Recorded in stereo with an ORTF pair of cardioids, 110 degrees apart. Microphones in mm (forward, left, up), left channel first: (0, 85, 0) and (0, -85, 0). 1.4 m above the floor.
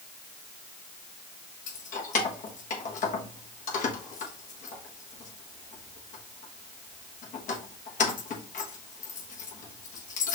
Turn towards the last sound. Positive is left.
turn(degrees=45)